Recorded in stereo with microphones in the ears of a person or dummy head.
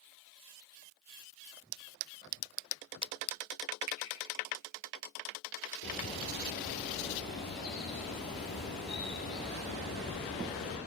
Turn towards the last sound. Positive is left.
turn(degrees=50)  # may be behind; listen again after turning